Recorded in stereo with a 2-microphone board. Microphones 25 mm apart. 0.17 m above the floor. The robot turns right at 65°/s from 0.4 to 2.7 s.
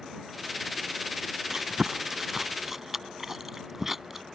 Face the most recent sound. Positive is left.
turn(degrees=-15)  # may be behind; listen again after turning